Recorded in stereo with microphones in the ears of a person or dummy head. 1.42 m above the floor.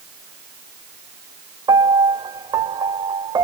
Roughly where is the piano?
Centre.